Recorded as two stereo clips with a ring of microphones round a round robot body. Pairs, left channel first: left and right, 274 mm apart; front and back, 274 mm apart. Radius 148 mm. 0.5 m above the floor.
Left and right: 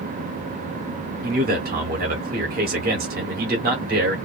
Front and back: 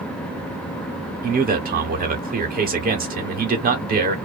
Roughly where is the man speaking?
Behind right.